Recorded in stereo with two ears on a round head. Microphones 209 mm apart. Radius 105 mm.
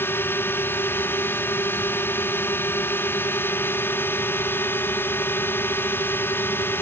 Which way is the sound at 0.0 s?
10° left (ahead or behind).